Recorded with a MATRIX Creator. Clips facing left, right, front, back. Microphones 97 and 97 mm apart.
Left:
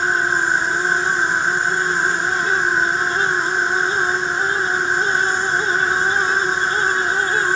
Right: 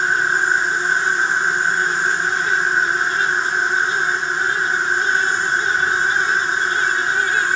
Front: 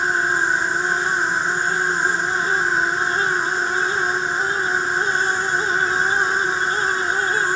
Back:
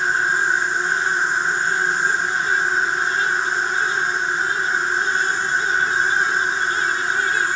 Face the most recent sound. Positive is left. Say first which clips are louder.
# even, even
turn(degrees=65)